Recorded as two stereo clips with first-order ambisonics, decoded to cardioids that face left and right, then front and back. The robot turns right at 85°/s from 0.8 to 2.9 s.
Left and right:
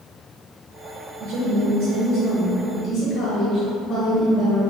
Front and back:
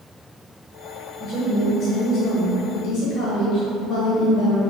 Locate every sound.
1.2 s a woman speaking: 130° right, 0.8 m; by 4.6 s 15° left, 0.8 m